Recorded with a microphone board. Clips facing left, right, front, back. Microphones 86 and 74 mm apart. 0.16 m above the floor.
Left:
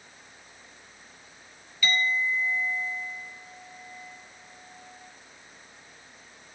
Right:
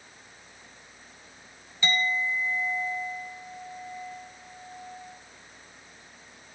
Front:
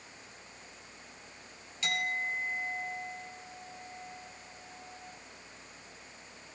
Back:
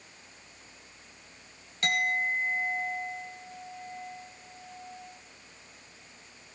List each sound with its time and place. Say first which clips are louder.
1.8 s a clink: even, back 5 dB; 150° right, 1.6 m